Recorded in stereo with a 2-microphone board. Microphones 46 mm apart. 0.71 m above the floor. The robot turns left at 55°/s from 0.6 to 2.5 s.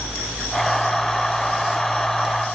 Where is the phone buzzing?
No phone buzzing in this recording.